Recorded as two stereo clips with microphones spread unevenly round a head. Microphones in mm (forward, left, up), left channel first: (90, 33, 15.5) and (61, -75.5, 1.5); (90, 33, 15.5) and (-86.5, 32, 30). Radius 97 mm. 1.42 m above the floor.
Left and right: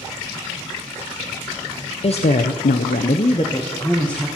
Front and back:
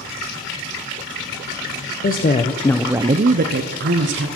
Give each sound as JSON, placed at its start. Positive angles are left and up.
{"t": 2.0, "sound": "a woman speaking", "azimuth_deg": 40, "distance_m": 0.8}